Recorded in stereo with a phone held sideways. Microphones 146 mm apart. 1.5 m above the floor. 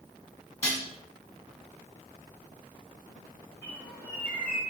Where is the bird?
15° left (ahead or behind), 1.2 m.